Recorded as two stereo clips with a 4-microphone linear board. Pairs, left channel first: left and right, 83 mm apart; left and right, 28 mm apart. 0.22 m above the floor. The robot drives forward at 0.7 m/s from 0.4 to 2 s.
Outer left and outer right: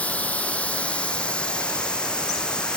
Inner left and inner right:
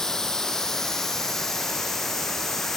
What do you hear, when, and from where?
0.0 s running water: 15° left (ahead or behind), 2 m; by 2.8 s 10° left (ahead or behind), 3.5 m